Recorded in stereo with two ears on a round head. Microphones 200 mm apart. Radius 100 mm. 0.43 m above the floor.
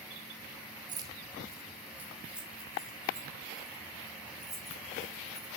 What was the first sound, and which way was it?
Keys jangling, 20° right (ahead or behind).